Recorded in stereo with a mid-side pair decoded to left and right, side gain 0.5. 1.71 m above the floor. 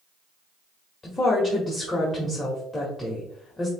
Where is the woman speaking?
25° left, 1.5 m.